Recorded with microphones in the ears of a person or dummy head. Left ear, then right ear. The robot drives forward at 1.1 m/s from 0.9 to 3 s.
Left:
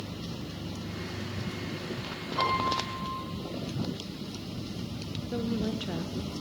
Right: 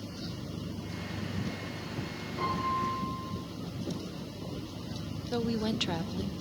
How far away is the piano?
About 8.5 m.